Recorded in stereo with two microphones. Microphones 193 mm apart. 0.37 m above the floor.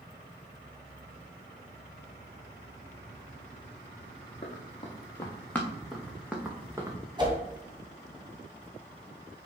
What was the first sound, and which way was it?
Running footsteps, 30° left (ahead or behind).